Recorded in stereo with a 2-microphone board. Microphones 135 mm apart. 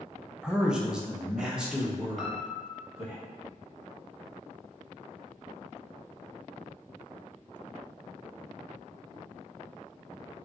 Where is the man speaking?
5° right (ahead or behind), 0.5 m.